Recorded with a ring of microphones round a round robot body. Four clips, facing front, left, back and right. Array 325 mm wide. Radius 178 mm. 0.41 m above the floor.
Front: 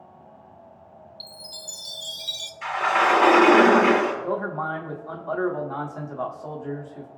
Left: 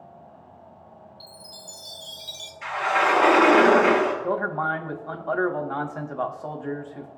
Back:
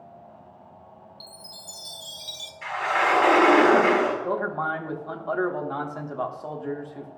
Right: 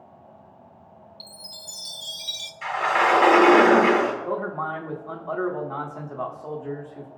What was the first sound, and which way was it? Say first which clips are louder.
A chime: left 1 dB, front 2 dB; 55° right.